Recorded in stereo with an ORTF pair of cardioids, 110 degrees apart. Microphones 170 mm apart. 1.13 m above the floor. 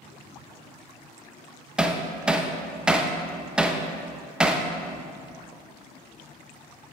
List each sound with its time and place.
1.8 s hammering: 5° right, 0.6 m